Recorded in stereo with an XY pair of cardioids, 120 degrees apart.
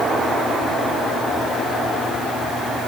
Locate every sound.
Only background noise.